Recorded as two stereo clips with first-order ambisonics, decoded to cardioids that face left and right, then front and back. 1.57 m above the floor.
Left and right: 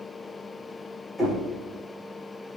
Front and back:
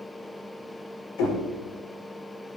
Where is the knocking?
5° right, 5 m.